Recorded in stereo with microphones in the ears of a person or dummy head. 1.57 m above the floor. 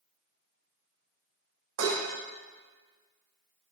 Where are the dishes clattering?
75° right (ahead or behind), 1.7 m.